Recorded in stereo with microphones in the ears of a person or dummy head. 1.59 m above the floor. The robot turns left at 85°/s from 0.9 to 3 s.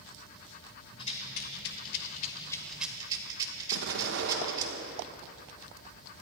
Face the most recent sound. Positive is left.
turn(degrees=-70)  # may be behind; listen again after turning